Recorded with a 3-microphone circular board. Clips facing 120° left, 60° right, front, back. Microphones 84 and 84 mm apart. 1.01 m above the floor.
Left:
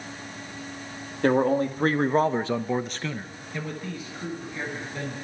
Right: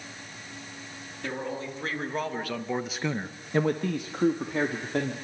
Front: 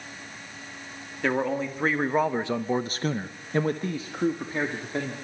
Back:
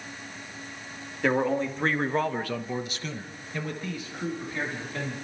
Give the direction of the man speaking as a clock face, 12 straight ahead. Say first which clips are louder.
Left 13 dB, back 1 dB; 9 o'clock.